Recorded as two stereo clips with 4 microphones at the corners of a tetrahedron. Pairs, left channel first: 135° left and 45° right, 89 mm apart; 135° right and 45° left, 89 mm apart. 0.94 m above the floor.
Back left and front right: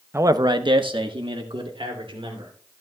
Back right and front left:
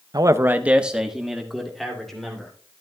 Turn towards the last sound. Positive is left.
turn(degrees=-50)